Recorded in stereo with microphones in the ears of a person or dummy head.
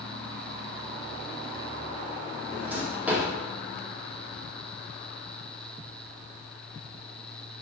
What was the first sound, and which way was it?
A drawer, 5° right (ahead or behind).